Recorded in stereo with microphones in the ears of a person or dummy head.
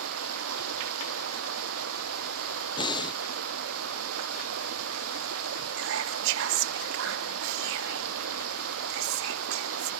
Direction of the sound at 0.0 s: 85° right.